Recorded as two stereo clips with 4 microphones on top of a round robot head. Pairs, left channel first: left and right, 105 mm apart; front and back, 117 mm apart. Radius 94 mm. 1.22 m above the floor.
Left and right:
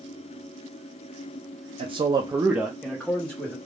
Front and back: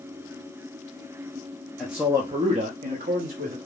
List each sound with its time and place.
1.8 s a man speaking: 90° right, 0.6 m; by 3.5 s 165° left, 1.1 m